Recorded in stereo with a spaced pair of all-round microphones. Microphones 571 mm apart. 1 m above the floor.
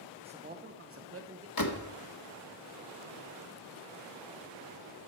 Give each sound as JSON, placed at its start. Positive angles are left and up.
{"t": 0.2, "sound": "a man speaking", "side_deg": -10, "distance_m": 0.8}
{"t": 1.6, "sound": "a door slam", "side_deg": 35, "distance_m": 1.0}